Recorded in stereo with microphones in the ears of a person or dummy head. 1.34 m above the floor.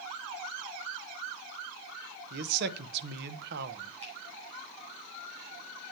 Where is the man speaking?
60° right (ahead or behind), 0.9 m.